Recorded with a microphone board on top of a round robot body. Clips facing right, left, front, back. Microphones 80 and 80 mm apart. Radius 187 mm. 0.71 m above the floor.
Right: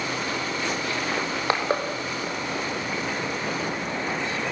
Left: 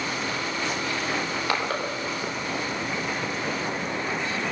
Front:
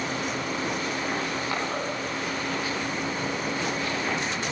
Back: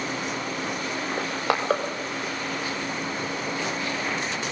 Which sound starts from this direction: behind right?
Crushing, at 1.2 s.